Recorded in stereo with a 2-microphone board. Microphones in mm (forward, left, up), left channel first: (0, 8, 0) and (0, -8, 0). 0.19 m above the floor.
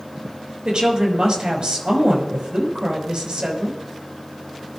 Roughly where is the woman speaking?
Right.